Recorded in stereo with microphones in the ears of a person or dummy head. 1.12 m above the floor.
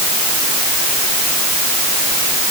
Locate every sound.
Only background noise.